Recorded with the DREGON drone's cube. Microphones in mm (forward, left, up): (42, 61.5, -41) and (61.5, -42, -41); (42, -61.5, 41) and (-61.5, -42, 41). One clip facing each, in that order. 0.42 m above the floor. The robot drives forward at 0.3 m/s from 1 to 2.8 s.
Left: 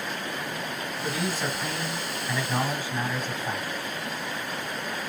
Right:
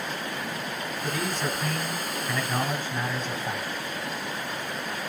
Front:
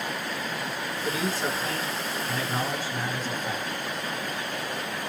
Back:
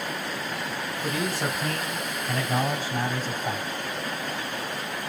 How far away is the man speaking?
About 1.8 m.